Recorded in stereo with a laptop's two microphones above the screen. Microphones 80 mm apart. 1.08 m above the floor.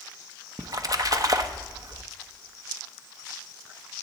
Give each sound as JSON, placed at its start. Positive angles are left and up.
{"t": 0.6, "sound": "a splash", "side_deg": -45, "distance_m": 0.8}